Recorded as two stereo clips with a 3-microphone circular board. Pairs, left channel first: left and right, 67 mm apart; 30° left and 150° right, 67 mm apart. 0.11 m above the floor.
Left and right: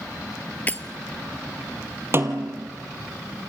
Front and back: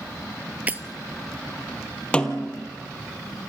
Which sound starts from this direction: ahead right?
A snare drum, at 2.1 s.